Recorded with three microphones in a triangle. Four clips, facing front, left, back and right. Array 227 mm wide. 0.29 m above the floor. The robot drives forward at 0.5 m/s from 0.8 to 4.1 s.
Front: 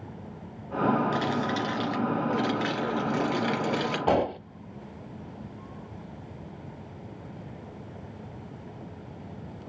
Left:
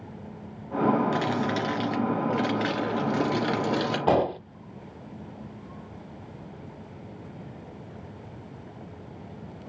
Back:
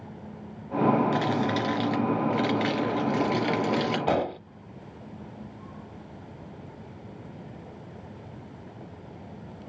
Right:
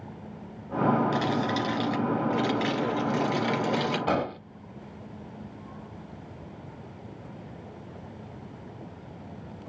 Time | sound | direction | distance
1.1 | crumpling | 120° left | 2.5 m
4.1 | an explosion | 70° left | 0.6 m